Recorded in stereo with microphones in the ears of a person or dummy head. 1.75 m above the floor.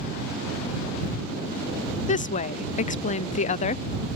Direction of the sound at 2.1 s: 35° left (ahead or behind).